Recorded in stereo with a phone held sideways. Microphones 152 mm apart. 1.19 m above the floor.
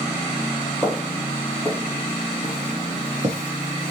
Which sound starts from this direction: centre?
Footsteps, at 0.8 s.